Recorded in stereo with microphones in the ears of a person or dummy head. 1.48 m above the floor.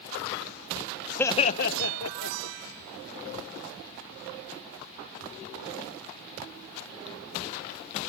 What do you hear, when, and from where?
1.2 s laughter: 10° left (ahead or behind), 0.5 m; by 2.6 s 80° left, 1.4 m